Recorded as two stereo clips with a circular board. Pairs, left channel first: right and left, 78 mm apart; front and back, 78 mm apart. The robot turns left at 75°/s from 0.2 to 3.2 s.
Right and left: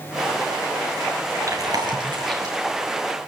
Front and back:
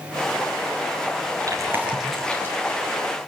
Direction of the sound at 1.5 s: 140° left.